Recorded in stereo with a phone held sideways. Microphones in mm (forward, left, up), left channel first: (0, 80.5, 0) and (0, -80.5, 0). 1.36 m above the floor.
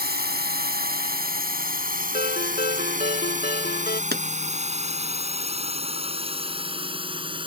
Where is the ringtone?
75° left (ahead or behind).